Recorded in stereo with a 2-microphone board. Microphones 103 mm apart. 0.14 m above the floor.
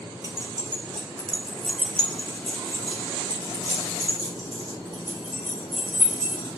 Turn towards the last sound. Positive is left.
turn(degrees=-25)  # may be behind; listen again after turning